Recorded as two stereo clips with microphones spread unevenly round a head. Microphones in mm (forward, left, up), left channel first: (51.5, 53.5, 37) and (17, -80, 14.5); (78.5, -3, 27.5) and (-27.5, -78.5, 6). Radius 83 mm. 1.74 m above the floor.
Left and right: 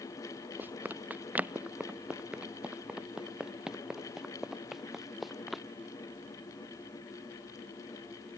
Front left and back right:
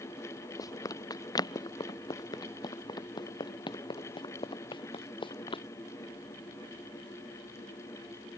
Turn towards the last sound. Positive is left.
turn(degrees=-15)